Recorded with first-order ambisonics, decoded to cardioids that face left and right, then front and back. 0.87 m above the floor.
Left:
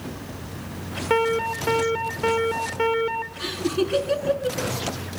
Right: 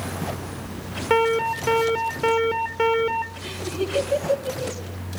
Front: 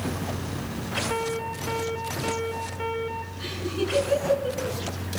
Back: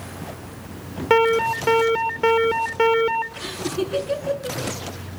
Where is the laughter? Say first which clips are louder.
Left 4 dB, back 3 dB; 95° left, 10 m.